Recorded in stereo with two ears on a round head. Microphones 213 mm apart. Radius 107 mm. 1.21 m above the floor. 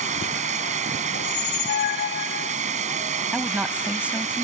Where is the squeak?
50° left (ahead or behind).